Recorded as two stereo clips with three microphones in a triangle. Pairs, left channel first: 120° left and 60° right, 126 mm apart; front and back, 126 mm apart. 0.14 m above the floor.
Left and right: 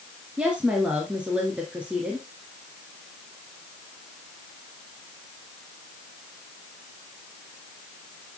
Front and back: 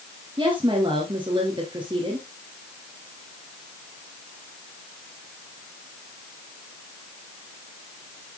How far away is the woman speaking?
About 2.5 m.